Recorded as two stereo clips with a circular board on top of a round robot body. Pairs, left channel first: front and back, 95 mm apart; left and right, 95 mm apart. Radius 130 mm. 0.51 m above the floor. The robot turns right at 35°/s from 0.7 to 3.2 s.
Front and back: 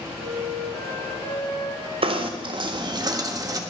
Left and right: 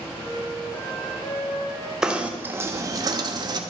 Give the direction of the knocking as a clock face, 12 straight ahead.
6 o'clock.